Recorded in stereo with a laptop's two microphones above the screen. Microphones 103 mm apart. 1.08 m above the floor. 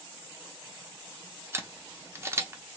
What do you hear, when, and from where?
1.5 s a camera shutter: 25° right (ahead or behind), 0.7 m